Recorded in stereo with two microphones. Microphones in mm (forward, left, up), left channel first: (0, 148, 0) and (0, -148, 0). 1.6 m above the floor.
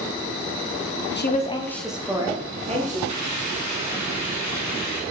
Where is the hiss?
70° right (ahead or behind), 1.2 m.